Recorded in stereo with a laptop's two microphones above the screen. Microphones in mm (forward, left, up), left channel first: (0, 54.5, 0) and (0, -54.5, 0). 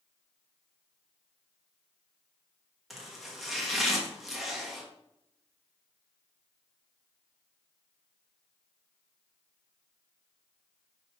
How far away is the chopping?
About 1.4 m.